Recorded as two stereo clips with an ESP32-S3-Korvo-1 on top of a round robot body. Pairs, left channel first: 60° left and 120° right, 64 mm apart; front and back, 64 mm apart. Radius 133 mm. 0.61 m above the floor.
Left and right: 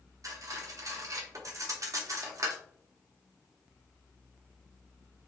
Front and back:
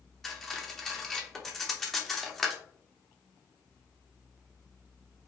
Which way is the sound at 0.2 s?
85° right.